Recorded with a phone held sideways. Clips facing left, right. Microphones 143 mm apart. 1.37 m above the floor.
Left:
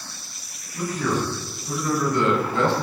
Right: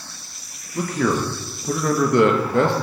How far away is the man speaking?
About 1.8 m.